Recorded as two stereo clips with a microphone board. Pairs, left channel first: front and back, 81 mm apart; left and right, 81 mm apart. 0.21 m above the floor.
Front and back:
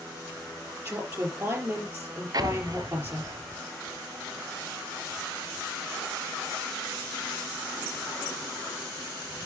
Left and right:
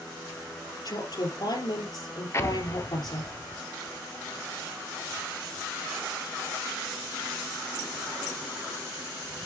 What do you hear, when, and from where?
0.8 s a woman speaking: 115° left, 4 m
2.3 s an explosion: 145° left, 0.6 m